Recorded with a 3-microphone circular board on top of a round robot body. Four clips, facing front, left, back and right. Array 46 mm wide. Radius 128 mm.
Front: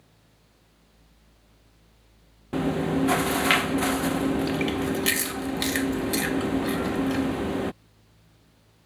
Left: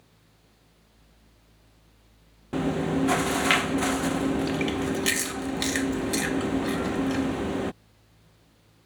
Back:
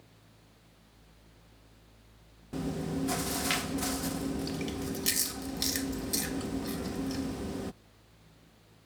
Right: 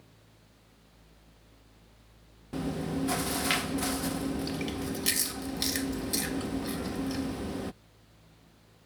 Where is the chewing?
35° left.